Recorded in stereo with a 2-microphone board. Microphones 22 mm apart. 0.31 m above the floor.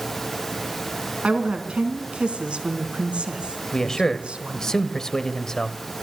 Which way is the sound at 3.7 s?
25° left (ahead or behind).